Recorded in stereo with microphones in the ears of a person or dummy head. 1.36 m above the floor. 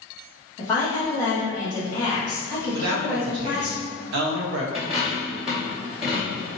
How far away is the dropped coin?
About 0.9 m.